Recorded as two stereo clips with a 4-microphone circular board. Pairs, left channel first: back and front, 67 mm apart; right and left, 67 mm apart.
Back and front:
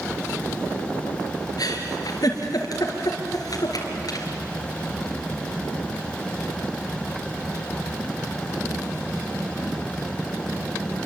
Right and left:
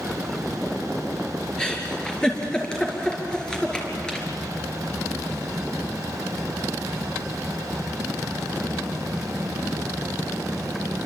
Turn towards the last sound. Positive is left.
turn(degrees=-165)